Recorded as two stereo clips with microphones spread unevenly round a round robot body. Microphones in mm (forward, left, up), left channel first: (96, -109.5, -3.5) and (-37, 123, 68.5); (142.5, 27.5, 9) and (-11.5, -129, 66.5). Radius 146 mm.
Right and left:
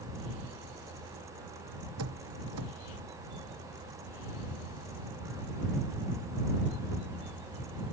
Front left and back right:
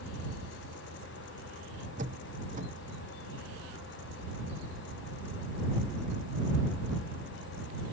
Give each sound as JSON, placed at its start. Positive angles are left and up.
{"t": 2.0, "sound": "a door slam", "azimuth_deg": 160}